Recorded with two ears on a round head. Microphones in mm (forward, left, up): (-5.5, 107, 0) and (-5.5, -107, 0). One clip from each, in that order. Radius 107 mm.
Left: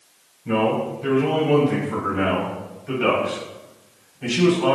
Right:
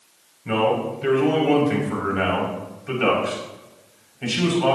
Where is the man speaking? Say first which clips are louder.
Even; 50° right (ahead or behind), 6 m; by 4.8 s 25° right (ahead or behind), 6 m.